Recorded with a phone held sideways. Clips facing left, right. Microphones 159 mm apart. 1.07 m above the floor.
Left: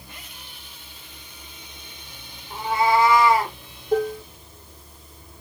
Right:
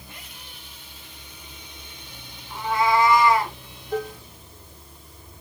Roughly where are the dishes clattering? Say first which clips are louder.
Left 6 dB; left.